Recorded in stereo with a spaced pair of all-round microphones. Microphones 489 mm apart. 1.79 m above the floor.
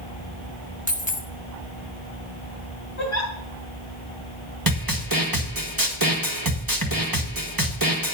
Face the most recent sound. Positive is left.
turn(degrees=-45)  # may be behind; listen again after turning